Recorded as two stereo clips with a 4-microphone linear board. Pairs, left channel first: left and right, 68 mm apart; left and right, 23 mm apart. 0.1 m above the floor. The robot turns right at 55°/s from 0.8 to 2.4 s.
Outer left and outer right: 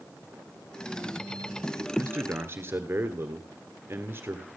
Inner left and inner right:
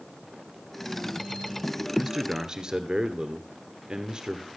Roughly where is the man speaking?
Right.